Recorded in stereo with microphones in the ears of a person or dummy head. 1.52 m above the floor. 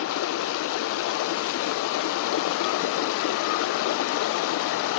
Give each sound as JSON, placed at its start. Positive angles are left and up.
{"t": 0.0, "sound": "running water", "side_deg": 75, "distance_m": 0.7}